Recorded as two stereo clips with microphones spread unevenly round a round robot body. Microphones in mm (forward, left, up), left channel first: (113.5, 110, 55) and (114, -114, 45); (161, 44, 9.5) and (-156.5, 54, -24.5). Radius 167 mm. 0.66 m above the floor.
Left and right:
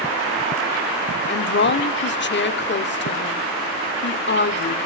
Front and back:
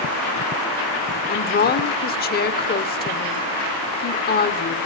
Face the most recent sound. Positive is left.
turn(degrees=60)